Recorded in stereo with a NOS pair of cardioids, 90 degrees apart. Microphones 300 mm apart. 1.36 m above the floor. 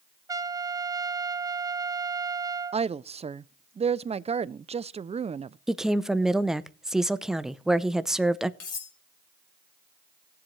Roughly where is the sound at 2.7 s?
Ahead.